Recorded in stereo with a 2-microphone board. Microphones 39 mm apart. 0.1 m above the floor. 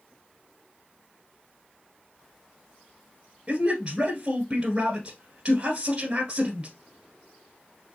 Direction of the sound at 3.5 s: 25° right (ahead or behind).